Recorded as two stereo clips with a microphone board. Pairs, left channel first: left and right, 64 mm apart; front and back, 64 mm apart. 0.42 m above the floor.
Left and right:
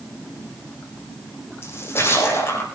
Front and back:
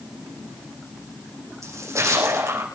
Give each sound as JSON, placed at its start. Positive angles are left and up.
{"t": 1.6, "sound": "a splash", "azimuth_deg": 140, "distance_m": 8.0}